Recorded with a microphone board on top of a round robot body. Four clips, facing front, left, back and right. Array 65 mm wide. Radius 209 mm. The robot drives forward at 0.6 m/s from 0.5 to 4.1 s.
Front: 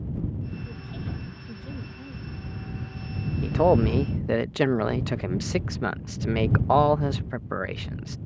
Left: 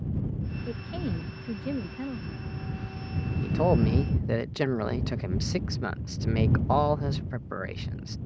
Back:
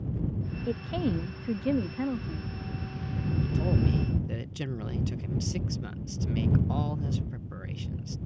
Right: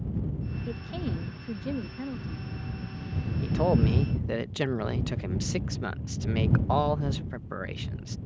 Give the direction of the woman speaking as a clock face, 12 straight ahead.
6 o'clock.